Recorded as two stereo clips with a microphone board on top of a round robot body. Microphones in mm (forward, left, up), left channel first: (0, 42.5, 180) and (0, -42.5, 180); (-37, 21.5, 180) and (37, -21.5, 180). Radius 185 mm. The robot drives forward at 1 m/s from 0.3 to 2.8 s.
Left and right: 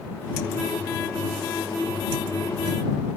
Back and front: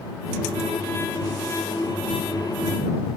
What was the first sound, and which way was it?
Only background noise.